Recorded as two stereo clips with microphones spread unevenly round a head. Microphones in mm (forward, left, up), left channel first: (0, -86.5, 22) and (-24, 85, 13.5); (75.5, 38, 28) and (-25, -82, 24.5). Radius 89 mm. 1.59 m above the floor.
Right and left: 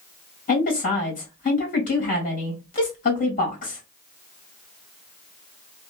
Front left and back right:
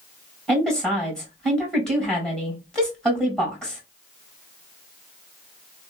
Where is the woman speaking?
35° right, 1.9 m.